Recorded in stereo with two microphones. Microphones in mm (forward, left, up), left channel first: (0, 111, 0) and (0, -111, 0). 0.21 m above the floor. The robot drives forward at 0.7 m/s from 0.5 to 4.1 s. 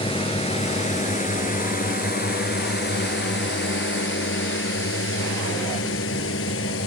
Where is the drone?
25° left (ahead or behind); by 6.9 s 70° left (ahead or behind).